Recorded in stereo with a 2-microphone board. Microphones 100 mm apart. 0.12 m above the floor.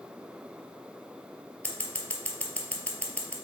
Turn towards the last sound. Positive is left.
turn(degrees=15)  # may be behind; listen again after turning